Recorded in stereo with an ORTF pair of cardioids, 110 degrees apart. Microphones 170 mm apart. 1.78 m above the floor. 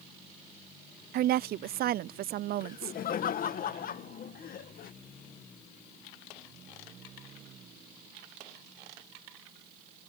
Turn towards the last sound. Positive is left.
turn(degrees=55)